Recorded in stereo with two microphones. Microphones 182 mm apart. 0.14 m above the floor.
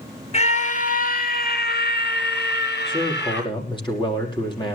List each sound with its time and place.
0.3 s a scream: 35° left (ahead or behind), 2.5 m; by 3.5 s 70° left (ahead or behind), 4 m
2.9 s a man speaking: 25° left (ahead or behind), 5 m